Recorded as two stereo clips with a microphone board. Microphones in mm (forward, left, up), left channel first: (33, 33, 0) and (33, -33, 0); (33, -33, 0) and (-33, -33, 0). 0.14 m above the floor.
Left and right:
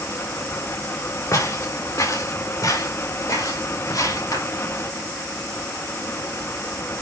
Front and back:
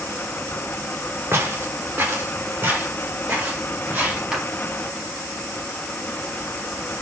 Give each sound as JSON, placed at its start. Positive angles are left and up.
{"t": 1.3, "sound": "footsteps", "azimuth_deg": 125, "distance_m": 2.5}
{"t": 4.3, "sound": "a clap", "azimuth_deg": 100, "distance_m": 2.5}